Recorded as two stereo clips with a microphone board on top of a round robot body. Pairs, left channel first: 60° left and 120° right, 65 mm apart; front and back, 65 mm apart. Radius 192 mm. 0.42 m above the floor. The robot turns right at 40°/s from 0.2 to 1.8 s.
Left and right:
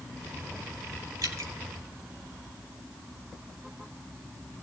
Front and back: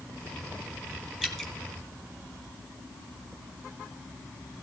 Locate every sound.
1.2 s dripping: 100° right, 3.5 m; by 1.5 s 85° right, 3.5 m